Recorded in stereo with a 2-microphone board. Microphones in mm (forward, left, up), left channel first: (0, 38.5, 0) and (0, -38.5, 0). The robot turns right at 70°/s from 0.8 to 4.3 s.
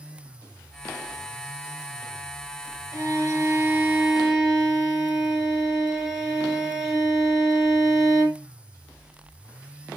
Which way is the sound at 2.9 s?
100° right.